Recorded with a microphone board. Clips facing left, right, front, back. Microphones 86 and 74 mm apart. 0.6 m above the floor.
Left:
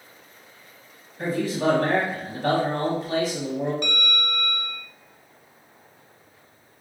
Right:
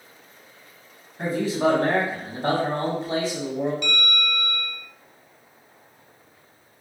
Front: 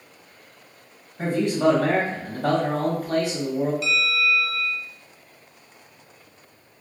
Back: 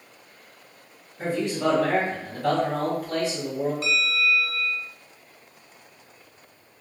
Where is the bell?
135° left, 0.6 m.